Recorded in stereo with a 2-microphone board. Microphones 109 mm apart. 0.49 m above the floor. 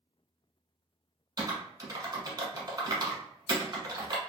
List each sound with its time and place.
1.4 s typing on a keyboard: 40° right (ahead or behind), 0.8 m